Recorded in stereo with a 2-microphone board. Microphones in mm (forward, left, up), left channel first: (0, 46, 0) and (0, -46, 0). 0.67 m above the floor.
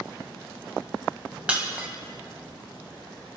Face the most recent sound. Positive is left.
turn(degrees=-15)  # may be behind; listen again after turning